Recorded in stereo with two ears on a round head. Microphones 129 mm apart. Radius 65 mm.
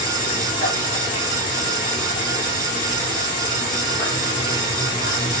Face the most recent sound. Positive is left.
turn(degrees=30)  # may be behind; listen again after turning